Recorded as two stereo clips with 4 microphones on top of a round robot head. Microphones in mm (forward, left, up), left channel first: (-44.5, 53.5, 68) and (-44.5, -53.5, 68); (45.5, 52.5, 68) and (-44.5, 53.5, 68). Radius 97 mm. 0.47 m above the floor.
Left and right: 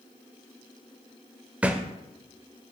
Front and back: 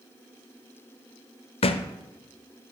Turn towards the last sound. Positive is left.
turn(degrees=-10)